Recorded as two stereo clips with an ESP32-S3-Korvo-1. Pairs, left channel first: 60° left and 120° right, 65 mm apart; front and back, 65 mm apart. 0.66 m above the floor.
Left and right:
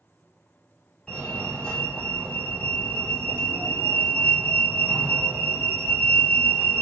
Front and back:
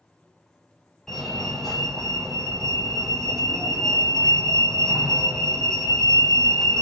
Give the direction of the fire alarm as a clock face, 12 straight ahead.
10 o'clock.